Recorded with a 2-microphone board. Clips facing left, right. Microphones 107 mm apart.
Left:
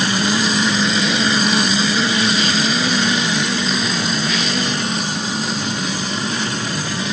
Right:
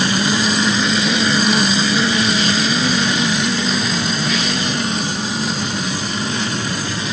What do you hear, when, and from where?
Only background noise.